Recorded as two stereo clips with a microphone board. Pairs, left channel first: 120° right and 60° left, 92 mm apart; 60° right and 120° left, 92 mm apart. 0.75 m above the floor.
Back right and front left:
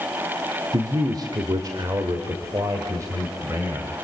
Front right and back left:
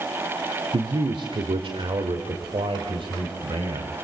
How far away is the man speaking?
About 2 m.